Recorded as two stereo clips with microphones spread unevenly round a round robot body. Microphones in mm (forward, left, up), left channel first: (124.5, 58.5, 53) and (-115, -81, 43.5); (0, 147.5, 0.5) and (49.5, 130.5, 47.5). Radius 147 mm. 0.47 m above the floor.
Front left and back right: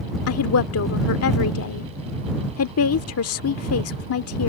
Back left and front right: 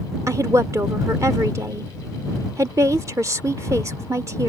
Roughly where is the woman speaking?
Ahead left.